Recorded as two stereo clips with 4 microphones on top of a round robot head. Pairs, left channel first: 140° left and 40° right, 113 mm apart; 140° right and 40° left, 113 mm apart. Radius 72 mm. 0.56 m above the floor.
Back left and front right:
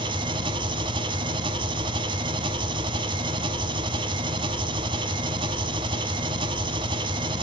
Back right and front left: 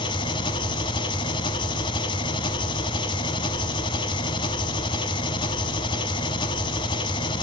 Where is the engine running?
90° right, 1.0 m.